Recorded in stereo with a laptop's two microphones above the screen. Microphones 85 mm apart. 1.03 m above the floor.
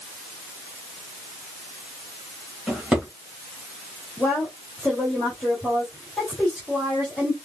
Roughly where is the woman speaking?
Centre.